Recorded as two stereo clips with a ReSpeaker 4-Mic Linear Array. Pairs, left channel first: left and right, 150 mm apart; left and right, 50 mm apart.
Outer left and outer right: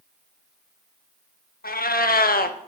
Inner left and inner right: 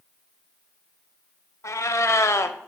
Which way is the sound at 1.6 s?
85° left.